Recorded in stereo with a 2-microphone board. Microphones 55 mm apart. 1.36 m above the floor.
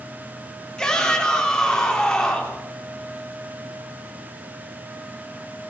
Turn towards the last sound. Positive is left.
turn(degrees=15)  # may be behind; listen again after turning